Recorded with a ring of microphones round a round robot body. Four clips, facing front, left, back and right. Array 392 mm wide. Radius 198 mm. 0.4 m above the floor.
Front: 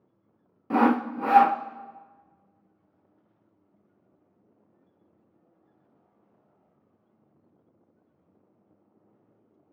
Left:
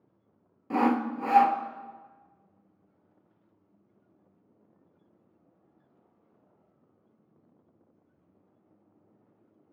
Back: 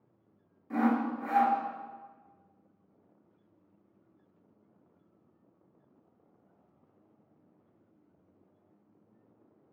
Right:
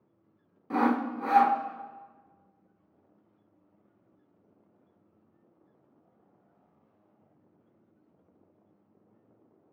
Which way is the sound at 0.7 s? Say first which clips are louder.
Left 1 dB, front 6 dB; 5° left.